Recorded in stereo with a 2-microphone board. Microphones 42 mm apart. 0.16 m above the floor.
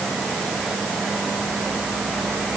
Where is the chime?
I don't hear a chime.